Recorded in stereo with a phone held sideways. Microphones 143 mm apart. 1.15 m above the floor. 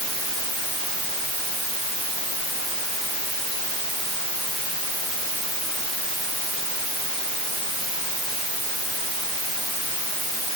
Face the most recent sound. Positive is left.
No sound to turn to.